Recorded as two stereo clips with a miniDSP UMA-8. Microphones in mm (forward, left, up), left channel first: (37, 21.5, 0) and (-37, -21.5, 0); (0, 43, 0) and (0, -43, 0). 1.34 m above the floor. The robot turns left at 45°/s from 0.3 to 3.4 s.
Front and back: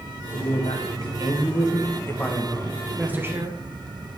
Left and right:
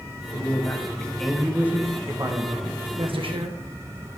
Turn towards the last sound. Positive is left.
turn(degrees=-95)